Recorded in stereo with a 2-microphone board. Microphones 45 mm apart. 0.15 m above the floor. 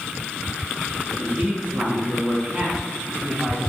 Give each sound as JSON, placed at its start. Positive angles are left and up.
{"t": 1.2, "sound": "a man speaking", "side_deg": -30, "distance_m": 1.3}